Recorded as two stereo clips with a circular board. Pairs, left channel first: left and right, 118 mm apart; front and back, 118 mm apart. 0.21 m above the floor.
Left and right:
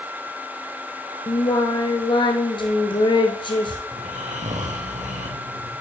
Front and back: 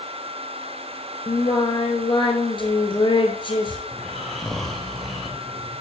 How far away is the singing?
About 1.4 m.